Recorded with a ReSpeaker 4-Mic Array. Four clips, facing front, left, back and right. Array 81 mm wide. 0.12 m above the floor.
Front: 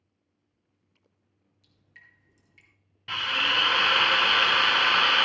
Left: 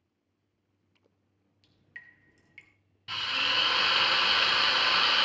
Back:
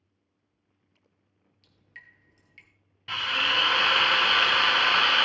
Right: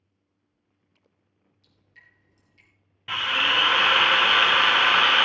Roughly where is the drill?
Right.